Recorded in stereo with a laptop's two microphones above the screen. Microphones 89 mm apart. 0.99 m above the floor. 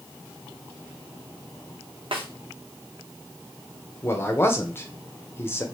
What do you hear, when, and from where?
2.1 s a snare drum: 65° right (ahead or behind), 0.8 m
4.0 s a man speaking: 25° left (ahead or behind), 0.7 m